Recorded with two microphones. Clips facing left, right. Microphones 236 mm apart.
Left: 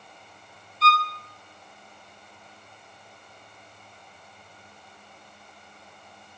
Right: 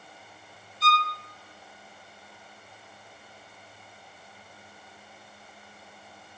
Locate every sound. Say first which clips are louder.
0.8 s a violin: left 3 dB; 70° left (ahead or behind), 0.7 m